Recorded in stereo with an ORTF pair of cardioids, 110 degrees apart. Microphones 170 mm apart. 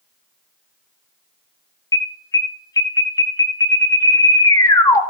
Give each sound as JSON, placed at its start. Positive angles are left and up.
{"t": 1.9, "sound": "an alarm", "azimuth_deg": 20, "distance_m": 1.4}